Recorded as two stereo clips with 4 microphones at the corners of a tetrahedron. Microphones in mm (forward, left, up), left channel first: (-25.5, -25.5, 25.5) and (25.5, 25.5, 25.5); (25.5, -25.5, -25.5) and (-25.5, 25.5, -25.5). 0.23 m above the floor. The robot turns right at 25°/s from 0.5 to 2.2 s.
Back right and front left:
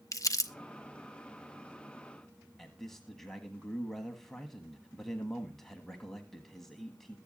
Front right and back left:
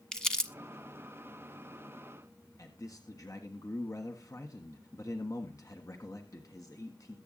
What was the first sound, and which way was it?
Crumpling, 125° right.